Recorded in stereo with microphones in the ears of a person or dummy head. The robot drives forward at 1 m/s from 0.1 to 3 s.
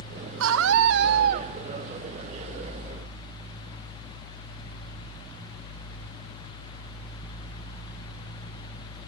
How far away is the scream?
About 1.3 m.